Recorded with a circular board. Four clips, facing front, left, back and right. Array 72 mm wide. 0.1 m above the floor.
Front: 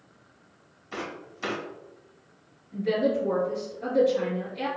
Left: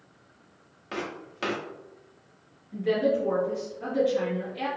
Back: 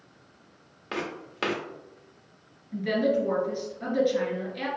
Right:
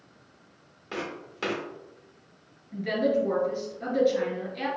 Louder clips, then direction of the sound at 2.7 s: Left 1 dB, even; 155° right.